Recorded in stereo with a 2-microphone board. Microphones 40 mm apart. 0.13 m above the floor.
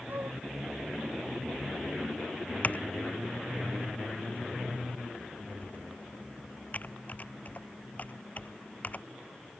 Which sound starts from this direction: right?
A flute, at 0.1 s.